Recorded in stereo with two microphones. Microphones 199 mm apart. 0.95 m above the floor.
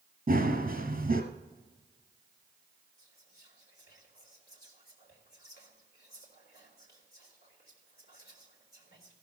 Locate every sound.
0.3 s running footsteps: 45° right (ahead or behind), 1.2 m
3.0 s whispering: 50° left (ahead or behind), 3.5 m